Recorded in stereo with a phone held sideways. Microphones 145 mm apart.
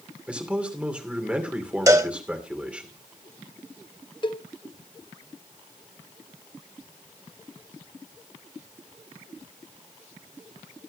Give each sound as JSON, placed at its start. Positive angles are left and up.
{"t": 0.3, "sound": "a man speaking", "side_deg": -10, "distance_m": 2.5}
{"t": 1.9, "sound": "a cowbell", "side_deg": -25, "distance_m": 1.0}
{"t": 4.2, "sound": "a cowbell", "side_deg": 35, "distance_m": 0.6}